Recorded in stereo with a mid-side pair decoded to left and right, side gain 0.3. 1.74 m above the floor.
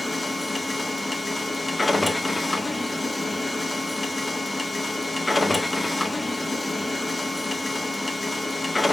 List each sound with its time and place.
0.0 s a machine running: 20° left, 1.2 m